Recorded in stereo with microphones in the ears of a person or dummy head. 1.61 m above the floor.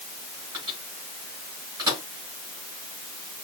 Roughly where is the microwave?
Right.